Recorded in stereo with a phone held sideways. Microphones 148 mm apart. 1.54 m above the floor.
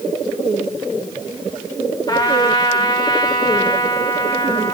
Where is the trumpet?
30° left (ahead or behind), 1.8 m.